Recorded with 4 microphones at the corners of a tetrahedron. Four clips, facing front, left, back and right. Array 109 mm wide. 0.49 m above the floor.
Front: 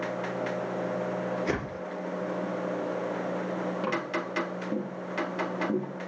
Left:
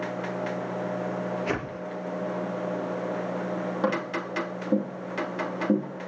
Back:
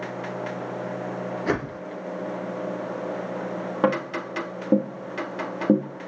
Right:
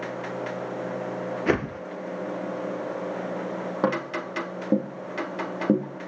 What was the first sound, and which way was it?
A whoosh, 110° right.